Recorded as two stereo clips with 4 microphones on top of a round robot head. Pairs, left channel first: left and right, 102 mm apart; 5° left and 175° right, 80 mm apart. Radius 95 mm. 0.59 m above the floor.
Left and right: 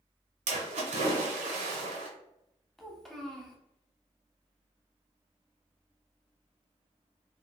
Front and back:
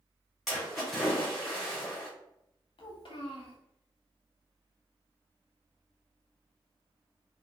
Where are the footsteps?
I don't hear footsteps.